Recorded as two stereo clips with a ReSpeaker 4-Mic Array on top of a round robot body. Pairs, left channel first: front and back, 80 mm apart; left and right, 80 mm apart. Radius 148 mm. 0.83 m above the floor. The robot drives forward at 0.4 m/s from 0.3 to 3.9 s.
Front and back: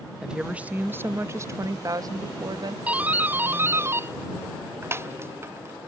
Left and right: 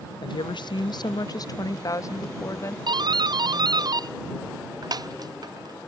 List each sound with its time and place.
0.2 s a woman speaking: 100° left; by 2.8 s 145° left
2.9 s a doorbell: 105° right; by 5.9 s 120° right